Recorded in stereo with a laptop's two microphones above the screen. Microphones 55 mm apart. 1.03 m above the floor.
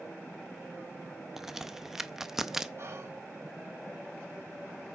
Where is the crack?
5° right (ahead or behind), 0.6 m.